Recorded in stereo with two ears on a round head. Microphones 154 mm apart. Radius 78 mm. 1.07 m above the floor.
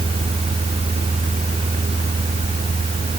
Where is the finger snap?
No finger snap in this recording.